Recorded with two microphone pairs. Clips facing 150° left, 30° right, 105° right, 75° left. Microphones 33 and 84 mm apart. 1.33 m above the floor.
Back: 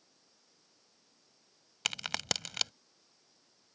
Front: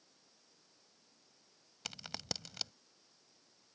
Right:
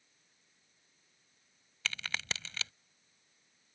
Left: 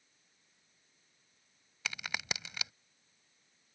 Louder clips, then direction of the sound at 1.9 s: Back 10 dB, even; 150° left.